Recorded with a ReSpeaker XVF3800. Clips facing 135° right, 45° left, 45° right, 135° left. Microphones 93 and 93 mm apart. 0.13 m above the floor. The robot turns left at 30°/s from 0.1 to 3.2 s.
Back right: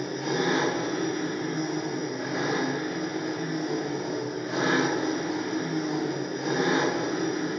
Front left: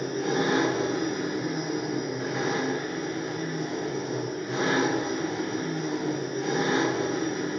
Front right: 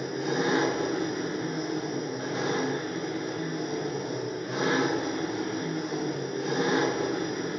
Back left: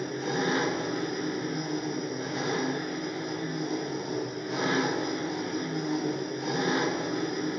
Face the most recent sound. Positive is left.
turn(degrees=-75)